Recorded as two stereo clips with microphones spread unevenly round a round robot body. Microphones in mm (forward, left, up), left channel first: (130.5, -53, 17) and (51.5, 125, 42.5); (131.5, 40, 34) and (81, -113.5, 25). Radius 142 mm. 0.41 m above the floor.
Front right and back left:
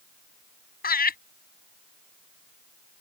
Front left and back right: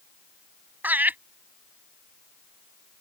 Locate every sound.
0.8 s laughter: 30° right